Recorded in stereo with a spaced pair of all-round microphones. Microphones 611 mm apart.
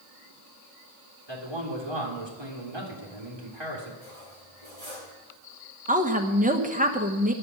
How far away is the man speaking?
About 3 m.